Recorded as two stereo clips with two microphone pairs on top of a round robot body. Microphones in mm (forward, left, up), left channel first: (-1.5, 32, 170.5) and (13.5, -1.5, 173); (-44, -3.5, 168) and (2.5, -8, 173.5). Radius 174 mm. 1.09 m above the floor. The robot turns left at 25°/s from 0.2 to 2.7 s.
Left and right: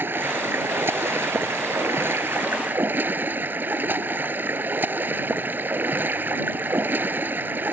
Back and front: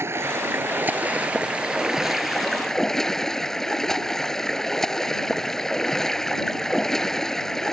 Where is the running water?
40° right; by 7.7 s 100° right.